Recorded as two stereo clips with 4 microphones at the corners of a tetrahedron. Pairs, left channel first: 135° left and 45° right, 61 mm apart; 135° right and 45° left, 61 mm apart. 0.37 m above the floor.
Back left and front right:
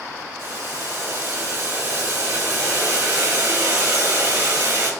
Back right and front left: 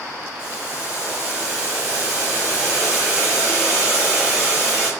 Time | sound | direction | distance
0.4 | boiling | 20° right | 1.9 m